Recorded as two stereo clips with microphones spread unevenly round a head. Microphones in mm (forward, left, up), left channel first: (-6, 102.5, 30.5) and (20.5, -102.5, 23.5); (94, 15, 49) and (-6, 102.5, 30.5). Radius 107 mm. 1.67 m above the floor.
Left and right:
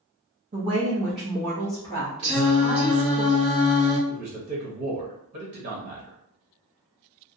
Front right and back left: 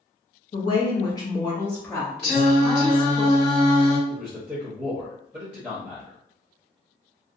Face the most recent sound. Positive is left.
turn(degrees=-130)